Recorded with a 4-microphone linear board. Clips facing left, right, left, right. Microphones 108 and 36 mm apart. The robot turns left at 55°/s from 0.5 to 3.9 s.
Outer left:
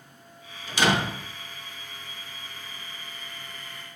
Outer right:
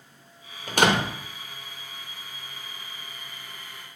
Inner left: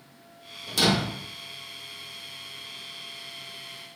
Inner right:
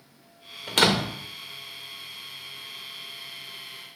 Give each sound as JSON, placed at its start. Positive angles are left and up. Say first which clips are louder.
{"t": 0.7, "sound": "a door slam", "louder": "outer right 2 dB, inner right 2 dB", "side_deg": -55, "distance_m": 0.5}